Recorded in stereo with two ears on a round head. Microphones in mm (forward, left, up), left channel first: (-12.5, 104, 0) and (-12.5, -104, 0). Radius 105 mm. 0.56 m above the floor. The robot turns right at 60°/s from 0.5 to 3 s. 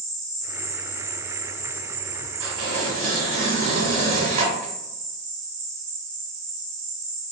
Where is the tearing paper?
70° right, 1.8 m; by 4.7 s 35° right, 1.8 m.